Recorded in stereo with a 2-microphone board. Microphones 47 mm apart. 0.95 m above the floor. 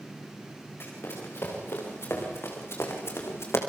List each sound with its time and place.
0.8 s running footsteps: 55° left (ahead or behind), 7.5 m; by 3.6 s 65° left (ahead or behind), 4 m